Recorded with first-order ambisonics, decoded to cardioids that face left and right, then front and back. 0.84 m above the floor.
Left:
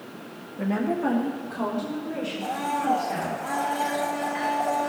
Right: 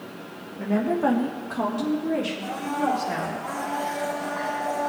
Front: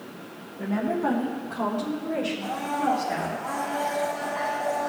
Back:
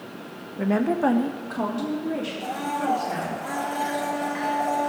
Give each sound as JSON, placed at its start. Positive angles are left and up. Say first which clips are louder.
{"t": 0.6, "sound": "a woman speaking", "louder": "right 3 dB, back 4 dB", "azimuth_deg": 160, "distance_m": 0.8}
{"t": 2.4, "sound": "a blender", "louder": "even, even", "azimuth_deg": 150, "distance_m": 3.0}